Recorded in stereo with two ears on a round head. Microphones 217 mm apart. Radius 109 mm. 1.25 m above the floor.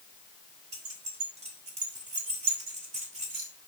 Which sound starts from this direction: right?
Keys jangling, at 0.7 s.